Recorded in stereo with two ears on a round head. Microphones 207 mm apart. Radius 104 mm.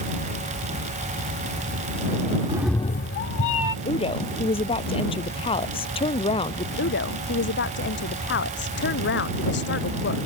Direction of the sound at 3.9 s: 25° left (ahead or behind).